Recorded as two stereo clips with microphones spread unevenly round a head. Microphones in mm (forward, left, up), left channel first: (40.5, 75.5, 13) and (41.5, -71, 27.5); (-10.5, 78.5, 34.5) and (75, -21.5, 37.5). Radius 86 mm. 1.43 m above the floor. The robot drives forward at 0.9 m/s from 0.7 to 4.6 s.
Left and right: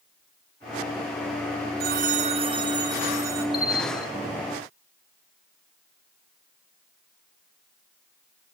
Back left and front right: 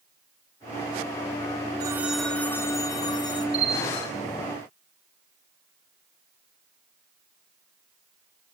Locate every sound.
1.8 s a phone ringing: 115° right, 0.6 m; by 3.4 s 165° right, 1.8 m
3.5 s a bell: 5° right, 3 m